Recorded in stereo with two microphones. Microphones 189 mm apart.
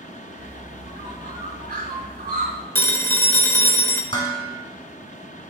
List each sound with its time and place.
0.4 s a bird: 50° right (ahead or behind), 1.1 m
2.8 s a phone ringing: 10° left (ahead or behind), 0.9 m
4.1 s dishes clattering: 25° left (ahead or behind), 2.0 m